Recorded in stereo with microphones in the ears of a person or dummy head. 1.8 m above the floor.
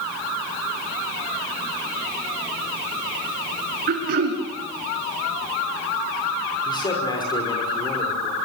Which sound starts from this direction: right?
Throat clearing, at 3.9 s.